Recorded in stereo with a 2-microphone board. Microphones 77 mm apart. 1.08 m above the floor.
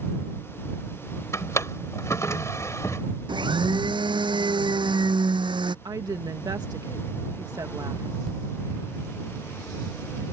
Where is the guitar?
No guitar in this recording.